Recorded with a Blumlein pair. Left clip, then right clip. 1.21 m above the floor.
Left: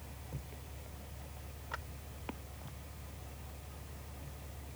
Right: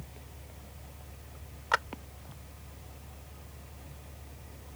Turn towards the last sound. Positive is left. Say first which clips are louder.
# right 16 dB
turn(degrees=-35)